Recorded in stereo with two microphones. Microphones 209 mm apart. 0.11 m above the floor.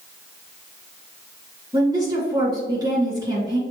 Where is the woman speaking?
20° right (ahead or behind), 1.8 m.